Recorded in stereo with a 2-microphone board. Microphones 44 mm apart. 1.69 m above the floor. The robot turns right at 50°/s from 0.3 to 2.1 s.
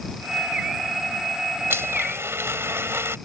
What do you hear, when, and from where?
1.7 s a blender: 80° right